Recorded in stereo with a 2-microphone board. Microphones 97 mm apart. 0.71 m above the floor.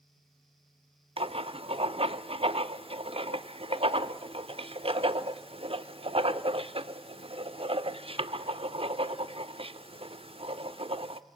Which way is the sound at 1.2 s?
75° right (ahead or behind).